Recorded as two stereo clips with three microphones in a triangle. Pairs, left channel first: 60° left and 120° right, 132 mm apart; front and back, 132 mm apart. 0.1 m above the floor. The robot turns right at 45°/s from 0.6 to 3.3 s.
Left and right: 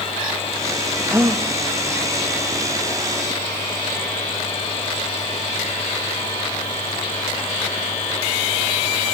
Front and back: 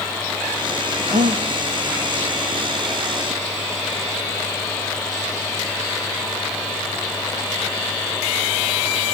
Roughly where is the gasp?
Behind.